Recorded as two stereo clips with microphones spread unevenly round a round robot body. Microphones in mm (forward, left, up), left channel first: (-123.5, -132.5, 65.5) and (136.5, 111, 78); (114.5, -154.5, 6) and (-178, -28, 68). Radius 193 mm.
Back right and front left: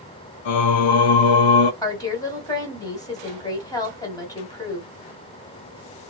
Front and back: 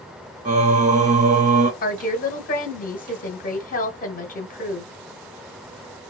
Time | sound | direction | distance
0.5 | singing | 135° right | 0.9 m
1.8 | a woman speaking | 60° right | 1.8 m